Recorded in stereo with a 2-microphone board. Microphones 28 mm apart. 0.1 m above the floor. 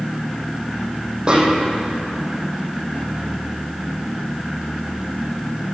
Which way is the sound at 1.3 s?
30° right (ahead or behind).